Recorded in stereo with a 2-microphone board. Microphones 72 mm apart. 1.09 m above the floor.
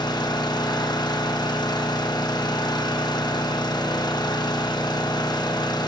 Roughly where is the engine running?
Left.